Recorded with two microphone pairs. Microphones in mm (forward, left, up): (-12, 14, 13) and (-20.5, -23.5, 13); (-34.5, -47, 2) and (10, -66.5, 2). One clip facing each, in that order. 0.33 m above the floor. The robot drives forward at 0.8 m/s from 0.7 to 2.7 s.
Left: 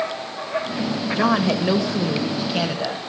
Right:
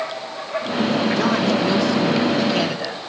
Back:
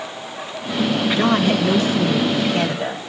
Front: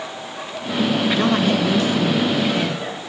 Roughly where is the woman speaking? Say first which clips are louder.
Right 1 dB, back 3 dB; left.